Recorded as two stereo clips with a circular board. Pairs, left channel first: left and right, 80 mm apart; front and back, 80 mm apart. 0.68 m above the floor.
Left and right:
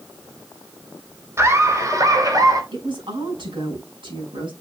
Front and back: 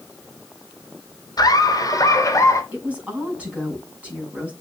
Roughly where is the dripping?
No dripping in this recording.